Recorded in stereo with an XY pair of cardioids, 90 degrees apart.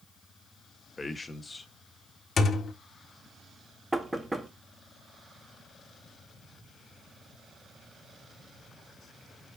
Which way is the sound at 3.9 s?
15° right.